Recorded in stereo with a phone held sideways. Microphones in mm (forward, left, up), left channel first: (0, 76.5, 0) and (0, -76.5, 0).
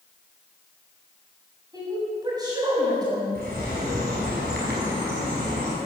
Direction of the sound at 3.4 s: 75° right (ahead or behind).